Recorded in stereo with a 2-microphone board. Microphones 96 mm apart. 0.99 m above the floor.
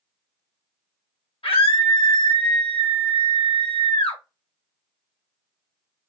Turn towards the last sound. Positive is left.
turn(degrees=65)  # may be behind; listen again after turning